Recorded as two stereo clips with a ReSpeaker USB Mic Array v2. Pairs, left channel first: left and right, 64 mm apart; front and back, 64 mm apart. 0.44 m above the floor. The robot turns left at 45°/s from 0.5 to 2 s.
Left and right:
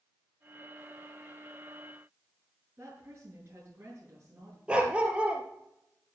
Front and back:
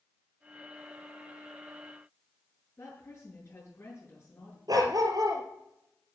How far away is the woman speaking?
About 6.5 m.